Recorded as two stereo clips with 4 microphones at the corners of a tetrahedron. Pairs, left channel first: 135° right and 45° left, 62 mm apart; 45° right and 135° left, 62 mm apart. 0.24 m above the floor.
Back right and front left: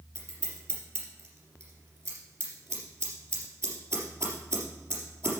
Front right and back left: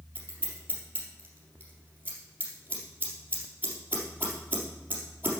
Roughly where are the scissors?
Left.